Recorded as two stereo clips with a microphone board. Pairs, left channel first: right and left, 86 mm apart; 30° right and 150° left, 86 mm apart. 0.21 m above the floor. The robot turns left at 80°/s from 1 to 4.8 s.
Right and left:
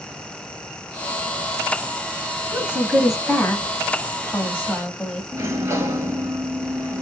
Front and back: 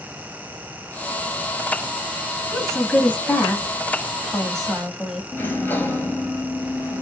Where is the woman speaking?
60° left, 1.0 m; by 5.2 s 125° right, 1.0 m.